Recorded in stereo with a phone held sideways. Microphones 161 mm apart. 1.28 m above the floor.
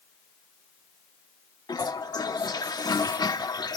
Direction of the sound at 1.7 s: 25° left (ahead or behind).